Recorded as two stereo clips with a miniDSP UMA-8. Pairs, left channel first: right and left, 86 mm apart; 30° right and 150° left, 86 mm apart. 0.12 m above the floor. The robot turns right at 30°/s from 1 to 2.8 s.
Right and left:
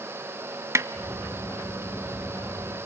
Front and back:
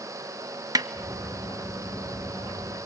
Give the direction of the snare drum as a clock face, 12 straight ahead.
8 o'clock.